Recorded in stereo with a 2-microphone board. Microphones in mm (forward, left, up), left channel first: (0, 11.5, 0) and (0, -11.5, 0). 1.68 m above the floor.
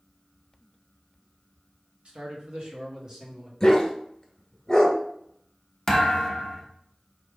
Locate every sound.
2.0 s a man speaking: 60° right (ahead or behind), 1.2 m; by 3.5 s 25° right (ahead or behind), 1.3 m
3.6 s a dog barking: 20° left (ahead or behind), 1.4 m
5.9 s a thud: 20° left (ahead or behind), 1.0 m